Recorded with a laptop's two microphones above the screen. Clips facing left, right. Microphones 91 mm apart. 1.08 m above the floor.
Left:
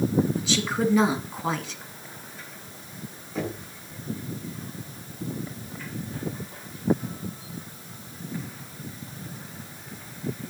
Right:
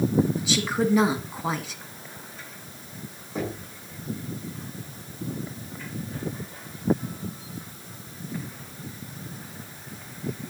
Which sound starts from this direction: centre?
A woman speaking, at 0.4 s.